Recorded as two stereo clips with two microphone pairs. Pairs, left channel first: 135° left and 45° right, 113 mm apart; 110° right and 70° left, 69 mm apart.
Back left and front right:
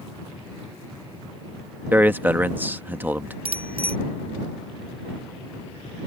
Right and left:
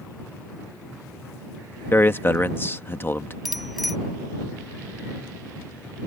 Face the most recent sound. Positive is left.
turn(degrees=-20)